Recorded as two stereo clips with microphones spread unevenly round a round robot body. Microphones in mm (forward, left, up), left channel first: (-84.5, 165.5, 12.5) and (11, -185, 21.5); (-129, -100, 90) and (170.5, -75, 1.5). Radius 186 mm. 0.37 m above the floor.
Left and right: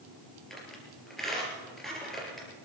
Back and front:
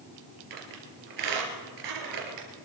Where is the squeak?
15° left, 3.5 m.